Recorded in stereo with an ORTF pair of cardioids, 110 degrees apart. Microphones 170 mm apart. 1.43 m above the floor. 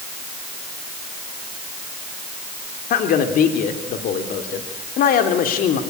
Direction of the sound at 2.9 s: 65° left.